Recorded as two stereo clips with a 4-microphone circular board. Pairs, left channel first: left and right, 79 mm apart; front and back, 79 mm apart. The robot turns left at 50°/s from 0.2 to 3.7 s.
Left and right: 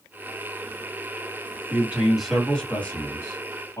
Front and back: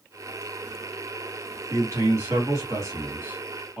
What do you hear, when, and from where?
1.7 s a man speaking: 150° right, 1.9 m; by 3.8 s 110° left, 1.9 m